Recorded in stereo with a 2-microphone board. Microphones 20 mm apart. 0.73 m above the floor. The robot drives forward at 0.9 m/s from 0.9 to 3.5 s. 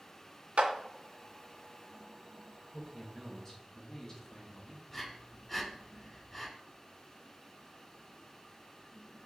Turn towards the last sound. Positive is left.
turn(degrees=0)  # may be behind; listen again after turning